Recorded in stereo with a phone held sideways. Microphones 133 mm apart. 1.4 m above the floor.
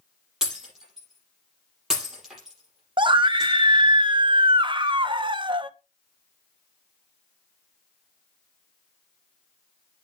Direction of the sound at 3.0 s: 35° right (ahead or behind).